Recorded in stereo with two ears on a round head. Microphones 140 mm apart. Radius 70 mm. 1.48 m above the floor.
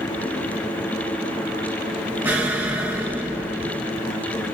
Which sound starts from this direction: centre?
An explosion, at 2.2 s.